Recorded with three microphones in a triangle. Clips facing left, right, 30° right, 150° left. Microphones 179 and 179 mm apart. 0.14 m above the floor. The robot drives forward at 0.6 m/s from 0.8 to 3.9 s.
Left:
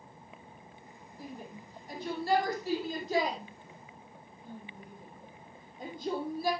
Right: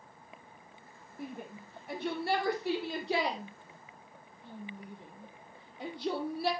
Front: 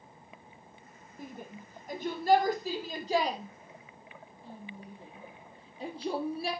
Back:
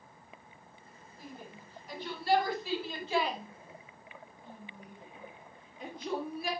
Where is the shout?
65° right, 4 m; by 6.5 s 90° right, 4 m.